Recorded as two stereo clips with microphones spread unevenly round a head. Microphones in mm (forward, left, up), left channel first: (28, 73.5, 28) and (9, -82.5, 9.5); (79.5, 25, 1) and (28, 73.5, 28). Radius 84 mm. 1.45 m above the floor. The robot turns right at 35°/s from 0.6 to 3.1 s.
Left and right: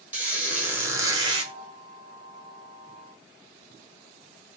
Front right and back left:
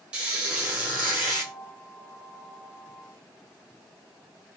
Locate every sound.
0.1 s a squeak: straight behind, 0.8 m; by 1.5 s 150° right, 0.8 m